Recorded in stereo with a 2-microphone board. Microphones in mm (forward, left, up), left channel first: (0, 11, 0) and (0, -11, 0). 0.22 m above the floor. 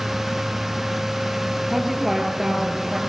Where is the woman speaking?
Centre (ahead or behind), 5 m; by 3.0 s 15° right (ahead or behind), 5 m.